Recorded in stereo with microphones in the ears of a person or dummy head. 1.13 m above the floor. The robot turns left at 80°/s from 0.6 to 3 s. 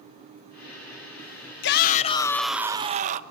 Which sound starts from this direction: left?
A shout, at 1.6 s.